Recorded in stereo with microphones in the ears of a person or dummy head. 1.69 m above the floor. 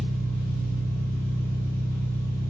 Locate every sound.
0.0 s an engine running: 15° left (ahead or behind), 1.6 m